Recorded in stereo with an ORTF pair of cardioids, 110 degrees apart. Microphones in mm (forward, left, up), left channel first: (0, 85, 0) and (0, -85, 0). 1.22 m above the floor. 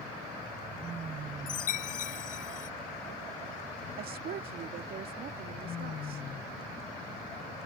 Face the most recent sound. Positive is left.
turn(degrees=-60)